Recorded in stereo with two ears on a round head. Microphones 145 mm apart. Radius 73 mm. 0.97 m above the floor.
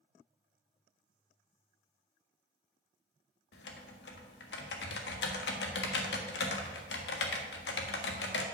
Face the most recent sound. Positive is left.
turn(degrees=75)  # may be behind; listen again after turning